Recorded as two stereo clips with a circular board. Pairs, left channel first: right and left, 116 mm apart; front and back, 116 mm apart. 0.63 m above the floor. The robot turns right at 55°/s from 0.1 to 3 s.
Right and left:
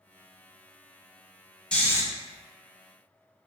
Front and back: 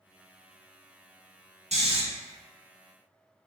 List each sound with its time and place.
1.7 s snoring: 170° right, 0.9 m; by 2.0 s 155° right, 0.9 m